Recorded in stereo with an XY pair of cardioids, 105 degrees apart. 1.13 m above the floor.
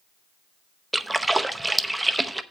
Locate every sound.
0.9 s a splash: 10° right, 0.7 m